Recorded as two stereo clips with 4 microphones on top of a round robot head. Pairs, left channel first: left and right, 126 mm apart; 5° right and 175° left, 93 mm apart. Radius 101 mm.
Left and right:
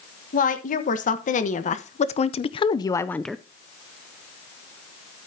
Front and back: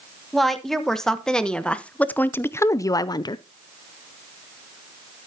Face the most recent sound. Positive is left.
turn(degrees=-10)